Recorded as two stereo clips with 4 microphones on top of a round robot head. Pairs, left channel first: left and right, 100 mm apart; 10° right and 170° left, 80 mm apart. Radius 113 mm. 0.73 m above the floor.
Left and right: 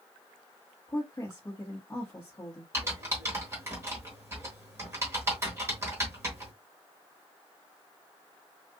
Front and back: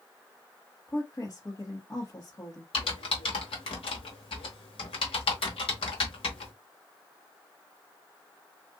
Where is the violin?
No violin in this recording.